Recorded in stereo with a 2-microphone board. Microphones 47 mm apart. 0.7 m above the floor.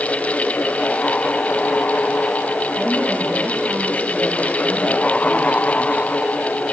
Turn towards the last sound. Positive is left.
turn(degrees=-25)  # may be behind; listen again after turning